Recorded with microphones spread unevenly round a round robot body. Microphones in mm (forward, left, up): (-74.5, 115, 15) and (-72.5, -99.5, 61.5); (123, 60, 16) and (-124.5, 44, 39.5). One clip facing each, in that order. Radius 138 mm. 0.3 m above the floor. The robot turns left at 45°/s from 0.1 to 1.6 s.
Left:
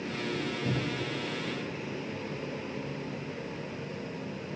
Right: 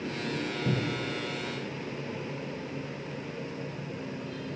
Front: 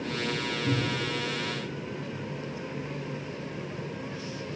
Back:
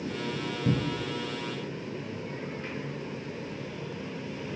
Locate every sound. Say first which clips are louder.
0.7 s a cupboard door: right 2 dB, back 1 dB; 175° right, 0.6 m; by 1.1 s 165° left, 0.6 m